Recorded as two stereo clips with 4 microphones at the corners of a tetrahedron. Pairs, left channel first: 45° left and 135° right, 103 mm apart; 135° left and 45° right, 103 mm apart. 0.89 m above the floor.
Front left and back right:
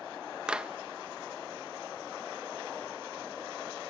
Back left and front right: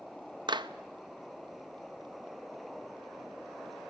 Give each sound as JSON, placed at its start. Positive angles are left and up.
{"t": 0.5, "sound": "a clap", "azimuth_deg": -55, "distance_m": 0.6}